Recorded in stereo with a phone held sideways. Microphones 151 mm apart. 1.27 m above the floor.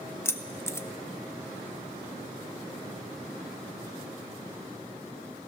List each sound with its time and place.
0.2 s keys jangling: 15° left (ahead or behind), 0.5 m